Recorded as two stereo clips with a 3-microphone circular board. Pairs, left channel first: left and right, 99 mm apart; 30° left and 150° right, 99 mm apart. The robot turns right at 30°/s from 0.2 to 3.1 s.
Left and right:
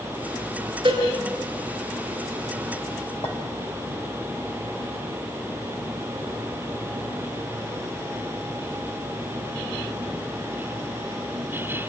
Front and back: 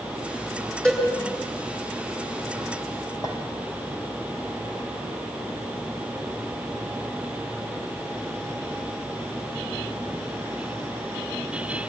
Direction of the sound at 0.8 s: 50° right.